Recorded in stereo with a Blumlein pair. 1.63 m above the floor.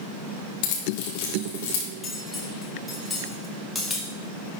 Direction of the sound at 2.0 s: 10° left.